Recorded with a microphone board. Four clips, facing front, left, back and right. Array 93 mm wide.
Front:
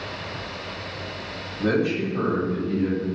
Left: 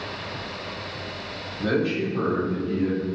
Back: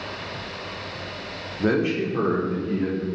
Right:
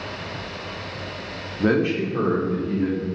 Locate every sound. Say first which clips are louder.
1.6 s a man speaking: right 3 dB, back 1 dB; 110° right, 0.7 m; by 3.0 s 145° right, 1.9 m